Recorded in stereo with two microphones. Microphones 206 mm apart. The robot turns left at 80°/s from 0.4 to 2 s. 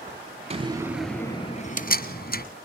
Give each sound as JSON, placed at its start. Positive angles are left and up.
{"t": 0.5, "sound": "a door slam", "side_deg": -30, "distance_m": 1.6}